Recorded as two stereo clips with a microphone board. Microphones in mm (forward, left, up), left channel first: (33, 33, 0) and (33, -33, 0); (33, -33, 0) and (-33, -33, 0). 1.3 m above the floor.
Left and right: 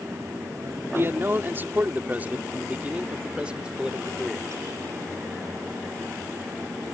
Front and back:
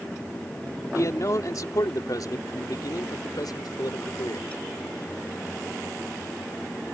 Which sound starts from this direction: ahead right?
A man speaking, at 0.9 s.